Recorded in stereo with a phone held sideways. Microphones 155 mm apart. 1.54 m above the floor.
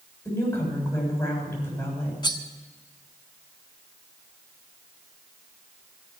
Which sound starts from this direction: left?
Cutlery clinking, at 2.2 s.